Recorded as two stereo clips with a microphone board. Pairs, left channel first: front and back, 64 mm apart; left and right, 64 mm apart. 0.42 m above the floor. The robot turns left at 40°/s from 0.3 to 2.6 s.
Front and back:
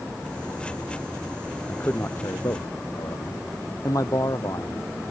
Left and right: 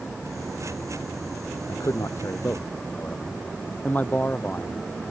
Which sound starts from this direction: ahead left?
A man speaking, at 1.7 s.